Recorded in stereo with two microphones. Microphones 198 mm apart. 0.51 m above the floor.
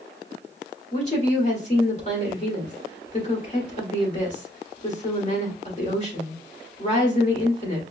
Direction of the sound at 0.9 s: 35° left (ahead or behind).